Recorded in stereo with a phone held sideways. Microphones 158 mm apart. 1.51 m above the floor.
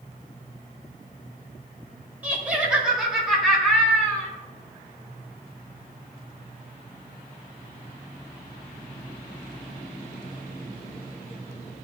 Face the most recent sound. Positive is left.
turn(degrees=15)  # may be behind; listen again after turning